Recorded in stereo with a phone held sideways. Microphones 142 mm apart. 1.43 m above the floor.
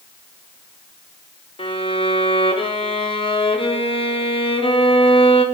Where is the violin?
40° left (ahead or behind), 0.8 m.